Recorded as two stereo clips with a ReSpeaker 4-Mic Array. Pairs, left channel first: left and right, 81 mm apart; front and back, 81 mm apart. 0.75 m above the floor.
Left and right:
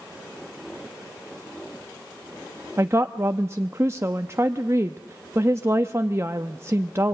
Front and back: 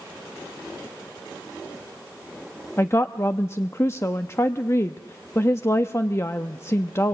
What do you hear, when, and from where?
2.8 s a woman speaking: 45° right, 0.8 m